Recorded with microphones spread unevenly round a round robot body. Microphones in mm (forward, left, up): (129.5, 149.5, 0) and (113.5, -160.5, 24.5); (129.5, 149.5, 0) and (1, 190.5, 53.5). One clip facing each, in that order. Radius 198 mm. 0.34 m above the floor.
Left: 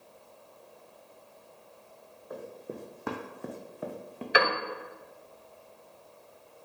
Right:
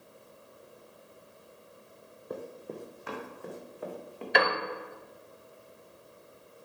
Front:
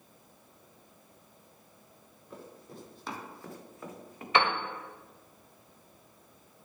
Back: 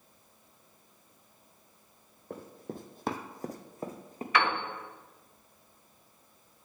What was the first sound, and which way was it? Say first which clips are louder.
Running footsteps: right 1 dB, back 6 dB; 155° right.